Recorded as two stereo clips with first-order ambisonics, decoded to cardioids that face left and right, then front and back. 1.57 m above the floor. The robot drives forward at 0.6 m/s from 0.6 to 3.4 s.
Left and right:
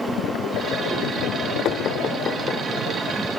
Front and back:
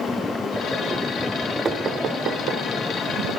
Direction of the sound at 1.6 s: 115° left.